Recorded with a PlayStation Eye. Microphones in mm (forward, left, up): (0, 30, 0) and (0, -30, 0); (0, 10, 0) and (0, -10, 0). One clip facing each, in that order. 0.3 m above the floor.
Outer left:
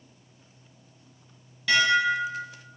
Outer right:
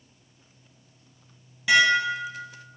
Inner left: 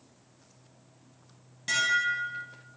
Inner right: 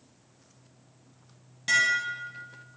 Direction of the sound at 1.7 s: 15° right (ahead or behind).